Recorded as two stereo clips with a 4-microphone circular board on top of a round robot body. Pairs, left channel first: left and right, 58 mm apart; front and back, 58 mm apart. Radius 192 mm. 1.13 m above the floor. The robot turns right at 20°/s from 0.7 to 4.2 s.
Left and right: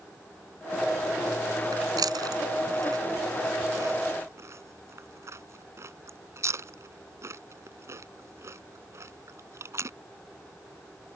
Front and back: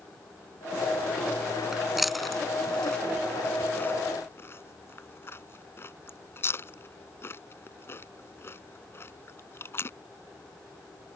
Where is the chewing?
100° right; by 9.9 s 50° right.